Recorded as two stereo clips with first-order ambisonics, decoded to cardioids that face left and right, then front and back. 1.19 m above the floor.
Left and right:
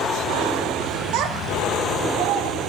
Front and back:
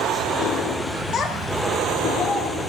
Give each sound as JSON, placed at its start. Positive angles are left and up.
{"t": 1.1, "sound": "a child speaking", "azimuth_deg": -60, "distance_m": 1.9}